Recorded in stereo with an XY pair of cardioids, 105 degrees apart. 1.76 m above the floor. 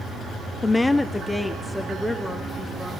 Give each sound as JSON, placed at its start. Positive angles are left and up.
{"t": 0.6, "sound": "a woman speaking", "azimuth_deg": 25, "distance_m": 0.7}